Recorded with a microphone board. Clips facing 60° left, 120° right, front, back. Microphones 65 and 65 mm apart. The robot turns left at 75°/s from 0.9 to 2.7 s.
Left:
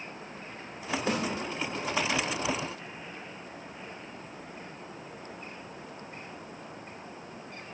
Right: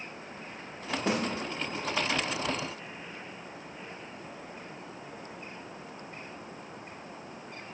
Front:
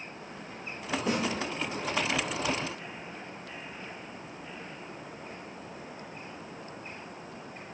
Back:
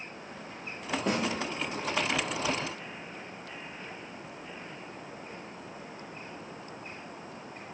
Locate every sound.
1.1 s a snare drum: 130° right, 6 m; by 1.2 s 140° right, 6 m